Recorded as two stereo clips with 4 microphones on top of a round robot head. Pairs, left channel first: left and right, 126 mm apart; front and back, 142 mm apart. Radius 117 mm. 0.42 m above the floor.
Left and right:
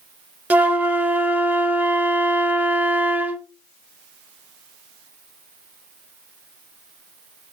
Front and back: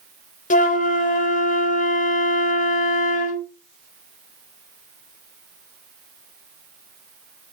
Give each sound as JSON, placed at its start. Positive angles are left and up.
{"t": 0.5, "sound": "a flute", "azimuth_deg": -15, "distance_m": 1.2}